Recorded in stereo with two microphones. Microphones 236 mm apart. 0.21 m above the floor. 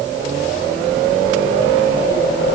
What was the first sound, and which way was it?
Only background noise.